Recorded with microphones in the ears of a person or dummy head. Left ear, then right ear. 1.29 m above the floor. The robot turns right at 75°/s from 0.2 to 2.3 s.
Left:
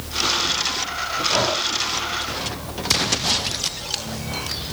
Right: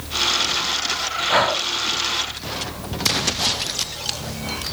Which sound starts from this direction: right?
Breathing, at 1.3 s.